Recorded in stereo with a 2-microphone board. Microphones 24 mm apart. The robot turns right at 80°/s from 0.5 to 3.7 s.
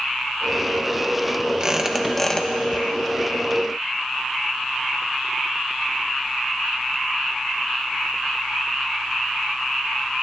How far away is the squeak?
About 1.1 m.